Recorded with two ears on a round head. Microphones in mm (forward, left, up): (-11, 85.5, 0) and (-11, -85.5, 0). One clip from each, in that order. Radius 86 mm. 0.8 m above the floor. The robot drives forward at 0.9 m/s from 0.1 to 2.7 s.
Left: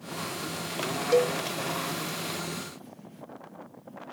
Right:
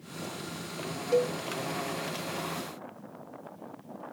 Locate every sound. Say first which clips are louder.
1.1 s a cowbell: left 3 dB; 35° left (ahead or behind); by 1.4 s 25° left (ahead or behind)